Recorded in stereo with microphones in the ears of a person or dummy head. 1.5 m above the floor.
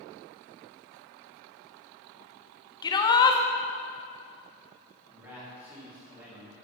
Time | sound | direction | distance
2.8 | a shout | 25° left (ahead or behind) | 1.1 m
5.1 | a man speaking | 10° right (ahead or behind) | 4 m